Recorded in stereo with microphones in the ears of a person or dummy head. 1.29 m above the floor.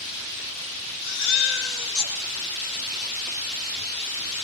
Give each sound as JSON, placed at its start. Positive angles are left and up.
{"t": 1.0, "sound": "a baby crying", "side_deg": 65, "distance_m": 7.5}